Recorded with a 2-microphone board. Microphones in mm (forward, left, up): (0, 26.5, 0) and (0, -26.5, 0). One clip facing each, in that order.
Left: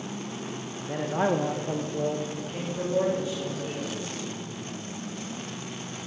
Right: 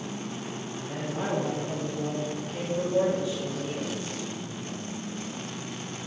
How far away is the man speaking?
About 0.9 m.